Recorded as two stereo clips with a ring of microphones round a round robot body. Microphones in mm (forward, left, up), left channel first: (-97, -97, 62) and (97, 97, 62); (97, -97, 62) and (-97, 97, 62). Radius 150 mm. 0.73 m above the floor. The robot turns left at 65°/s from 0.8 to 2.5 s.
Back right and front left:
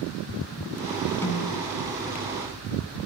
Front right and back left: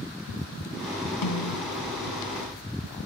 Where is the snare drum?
55° right, 2.5 m; by 1.6 s 80° right, 2.5 m.